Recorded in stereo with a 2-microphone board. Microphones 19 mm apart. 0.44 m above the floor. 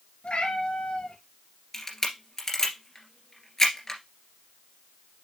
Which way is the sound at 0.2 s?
70° left (ahead or behind).